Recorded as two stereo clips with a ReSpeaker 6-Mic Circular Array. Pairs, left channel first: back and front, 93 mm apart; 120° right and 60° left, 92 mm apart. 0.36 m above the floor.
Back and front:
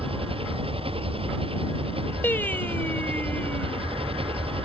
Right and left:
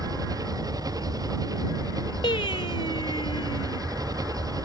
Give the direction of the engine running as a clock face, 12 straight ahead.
12 o'clock.